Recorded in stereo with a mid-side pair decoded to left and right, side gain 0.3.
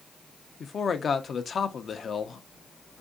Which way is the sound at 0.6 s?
65° left.